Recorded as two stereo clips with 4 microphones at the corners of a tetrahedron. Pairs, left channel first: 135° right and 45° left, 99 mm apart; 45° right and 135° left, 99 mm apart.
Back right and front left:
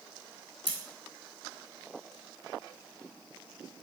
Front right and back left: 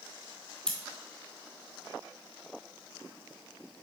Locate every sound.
0.7 s scissors: 130° right, 0.8 m